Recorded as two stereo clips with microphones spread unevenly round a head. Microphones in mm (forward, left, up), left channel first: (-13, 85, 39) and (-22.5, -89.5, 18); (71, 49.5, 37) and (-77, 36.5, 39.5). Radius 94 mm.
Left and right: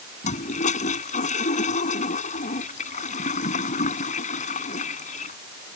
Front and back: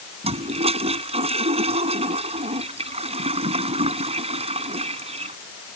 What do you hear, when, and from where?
0.2 s a toilet flushing: 135° left